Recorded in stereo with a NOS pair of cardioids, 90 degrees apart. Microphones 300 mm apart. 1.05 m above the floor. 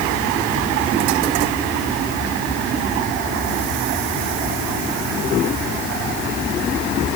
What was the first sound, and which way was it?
Only background noise.